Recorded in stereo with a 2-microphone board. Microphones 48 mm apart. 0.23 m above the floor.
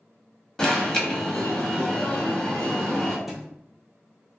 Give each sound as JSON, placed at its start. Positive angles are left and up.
{"t": 0.6, "sound": "an alarm", "side_deg": 15, "distance_m": 0.8}
{"t": 3.3, "sound": "a thud", "side_deg": -5, "distance_m": 0.7}